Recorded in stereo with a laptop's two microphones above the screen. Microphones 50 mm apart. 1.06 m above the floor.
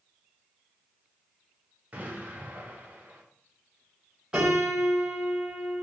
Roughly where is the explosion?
Right.